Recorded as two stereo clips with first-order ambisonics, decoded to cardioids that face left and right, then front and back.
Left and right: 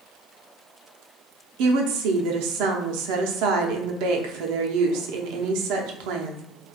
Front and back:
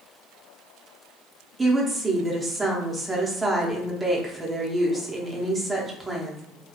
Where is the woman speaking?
100° right, 0.7 m.